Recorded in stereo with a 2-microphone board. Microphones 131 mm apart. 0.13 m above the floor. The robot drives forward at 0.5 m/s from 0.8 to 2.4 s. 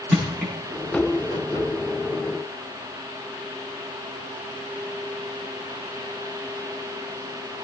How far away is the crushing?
About 9 m.